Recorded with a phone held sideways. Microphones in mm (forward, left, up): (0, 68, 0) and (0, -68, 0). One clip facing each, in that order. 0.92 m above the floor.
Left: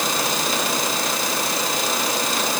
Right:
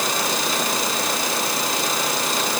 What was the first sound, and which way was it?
Only background noise.